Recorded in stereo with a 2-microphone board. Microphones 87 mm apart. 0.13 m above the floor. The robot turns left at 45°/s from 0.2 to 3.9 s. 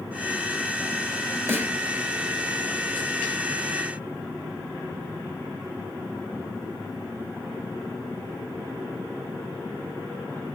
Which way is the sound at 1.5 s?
30° right (ahead or behind).